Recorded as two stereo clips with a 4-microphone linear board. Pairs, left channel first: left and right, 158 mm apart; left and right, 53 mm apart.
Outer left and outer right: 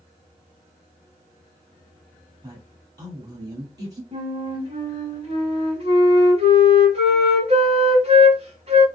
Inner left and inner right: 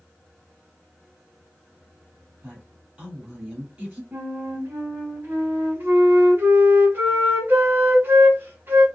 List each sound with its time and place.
2.4 s a woman speaking: 25° right (ahead or behind), 1.5 m
4.1 s a flute: 40° right (ahead or behind), 1.0 m